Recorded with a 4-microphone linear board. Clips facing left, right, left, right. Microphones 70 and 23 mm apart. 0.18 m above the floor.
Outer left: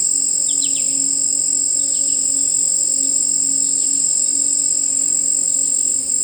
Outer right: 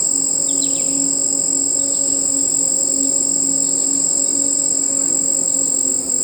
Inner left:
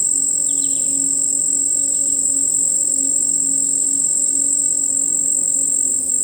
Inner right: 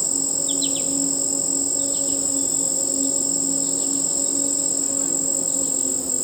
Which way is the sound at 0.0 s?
40° right (ahead or behind).